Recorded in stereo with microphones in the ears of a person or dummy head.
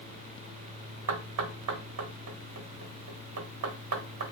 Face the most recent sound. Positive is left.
turn(degrees=-85)